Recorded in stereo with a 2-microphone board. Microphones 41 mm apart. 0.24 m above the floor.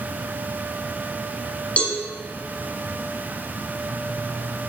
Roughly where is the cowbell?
Left.